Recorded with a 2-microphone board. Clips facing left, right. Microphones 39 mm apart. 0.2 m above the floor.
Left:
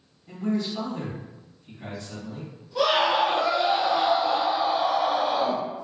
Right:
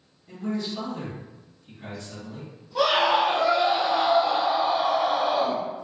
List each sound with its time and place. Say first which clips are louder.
0.3 s a man speaking: left 3 dB; 15° left (ahead or behind), 1.3 m
2.8 s a scream: right 1 dB; 25° right (ahead or behind), 1.2 m